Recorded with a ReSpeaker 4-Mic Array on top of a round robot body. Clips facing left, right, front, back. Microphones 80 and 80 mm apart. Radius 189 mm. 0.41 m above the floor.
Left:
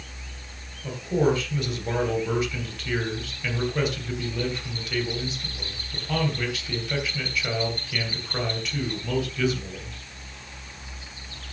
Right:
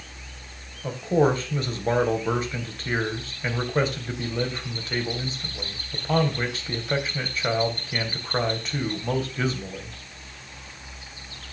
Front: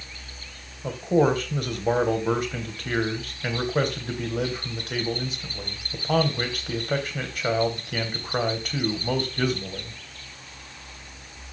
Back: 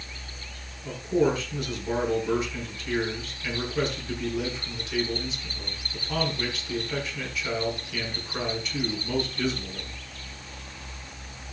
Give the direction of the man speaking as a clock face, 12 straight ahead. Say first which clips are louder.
Right 2 dB, front 3 dB; 1 o'clock.